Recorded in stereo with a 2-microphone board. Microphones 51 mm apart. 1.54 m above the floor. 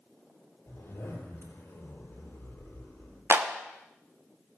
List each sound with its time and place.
0.7 s a zipper: 70° left (ahead or behind), 4 m
3.3 s a clap: 55° right (ahead or behind), 0.9 m